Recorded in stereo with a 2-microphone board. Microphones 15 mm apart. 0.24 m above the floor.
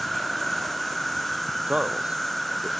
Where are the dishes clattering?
No dishes clattering in this recording.